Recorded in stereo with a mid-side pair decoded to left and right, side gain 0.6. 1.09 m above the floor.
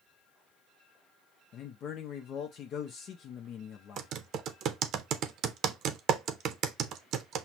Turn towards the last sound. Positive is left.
turn(degrees=-55)